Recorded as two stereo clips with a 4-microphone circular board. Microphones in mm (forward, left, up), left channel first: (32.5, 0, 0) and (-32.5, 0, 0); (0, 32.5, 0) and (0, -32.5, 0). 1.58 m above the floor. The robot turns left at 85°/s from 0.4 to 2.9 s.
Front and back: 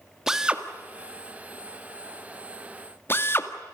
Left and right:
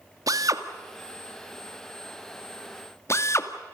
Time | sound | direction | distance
0.3 | a drill | 100° right | 1.7 m